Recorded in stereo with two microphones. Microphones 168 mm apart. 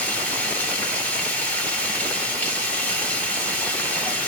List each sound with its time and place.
0.0 s running water: 10° left (ahead or behind), 1.4 m